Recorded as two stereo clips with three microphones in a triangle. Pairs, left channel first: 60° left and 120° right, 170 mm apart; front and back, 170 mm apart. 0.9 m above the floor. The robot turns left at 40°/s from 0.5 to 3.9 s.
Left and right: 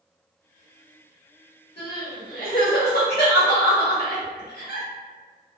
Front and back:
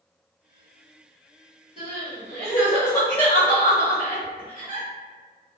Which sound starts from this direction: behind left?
Crying, at 1.8 s.